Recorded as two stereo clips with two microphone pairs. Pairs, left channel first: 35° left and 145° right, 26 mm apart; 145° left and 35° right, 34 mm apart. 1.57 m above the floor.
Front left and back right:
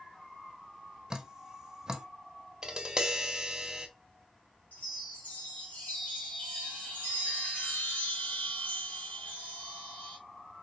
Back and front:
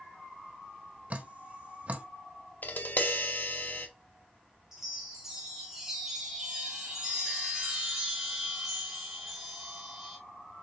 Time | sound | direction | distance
1.1 | dripping | 80° right | 0.7 m
2.6 | tapping | 150° left | 0.7 m
4.7 | a chime | 45° left | 1.9 m